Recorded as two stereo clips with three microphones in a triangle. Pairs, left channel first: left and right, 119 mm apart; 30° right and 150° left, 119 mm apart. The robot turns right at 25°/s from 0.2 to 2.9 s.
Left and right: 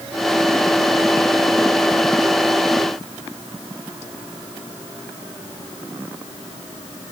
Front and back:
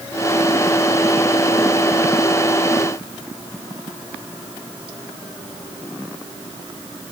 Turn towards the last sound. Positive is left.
No sound to turn to.